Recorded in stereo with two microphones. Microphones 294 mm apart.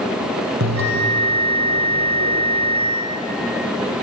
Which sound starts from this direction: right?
A bell, at 0.6 s.